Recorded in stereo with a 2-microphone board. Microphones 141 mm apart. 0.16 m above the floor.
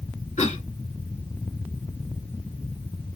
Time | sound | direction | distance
0.4 | a cough | 55° left (ahead or behind) | 2.5 m